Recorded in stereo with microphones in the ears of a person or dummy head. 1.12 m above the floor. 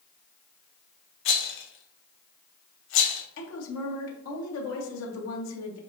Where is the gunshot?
I don't hear a gunshot.